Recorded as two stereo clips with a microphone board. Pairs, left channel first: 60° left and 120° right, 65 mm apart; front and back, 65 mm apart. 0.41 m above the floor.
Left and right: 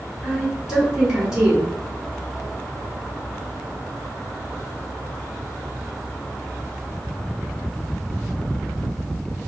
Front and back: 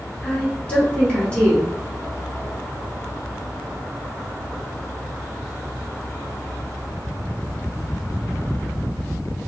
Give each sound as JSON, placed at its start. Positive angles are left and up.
{"t": 0.2, "sound": "a woman speaking", "azimuth_deg": -50, "distance_m": 1.3}